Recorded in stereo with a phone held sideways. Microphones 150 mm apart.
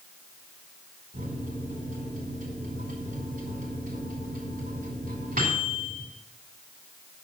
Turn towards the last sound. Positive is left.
turn(degrees=-65)  # may be behind; listen again after turning